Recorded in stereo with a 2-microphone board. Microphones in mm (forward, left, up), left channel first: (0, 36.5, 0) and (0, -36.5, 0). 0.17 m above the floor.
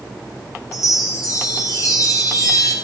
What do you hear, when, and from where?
0.7 s a chime: 45° left (ahead or behind), 9 m